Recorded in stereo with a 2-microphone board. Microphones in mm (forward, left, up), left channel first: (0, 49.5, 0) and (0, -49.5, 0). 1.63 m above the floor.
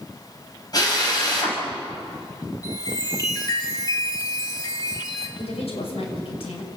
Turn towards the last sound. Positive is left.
turn(degrees=80)